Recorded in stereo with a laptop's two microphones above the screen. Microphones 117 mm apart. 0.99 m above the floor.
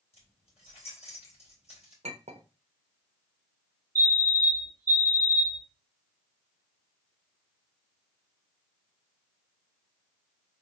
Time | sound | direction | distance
0.1 | keys jangling | 60° left (ahead or behind) | 3.5 m
2.0 | a clink | 70° right (ahead or behind) | 0.8 m
4.0 | a fire alarm | 20° right (ahead or behind) | 1.9 m